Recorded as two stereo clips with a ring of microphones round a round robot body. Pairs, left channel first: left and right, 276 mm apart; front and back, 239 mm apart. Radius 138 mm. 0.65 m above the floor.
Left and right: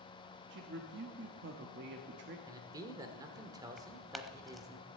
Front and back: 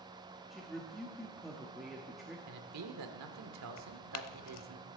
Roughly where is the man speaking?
Behind.